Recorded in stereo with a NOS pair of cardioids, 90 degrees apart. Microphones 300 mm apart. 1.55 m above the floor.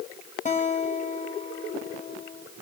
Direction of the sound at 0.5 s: 25° left.